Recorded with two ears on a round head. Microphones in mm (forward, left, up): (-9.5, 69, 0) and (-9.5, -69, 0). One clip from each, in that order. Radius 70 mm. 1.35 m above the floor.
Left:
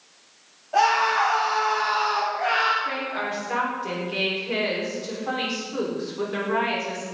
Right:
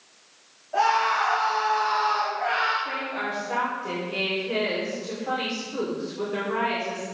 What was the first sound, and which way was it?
A scream, 75° left (ahead or behind).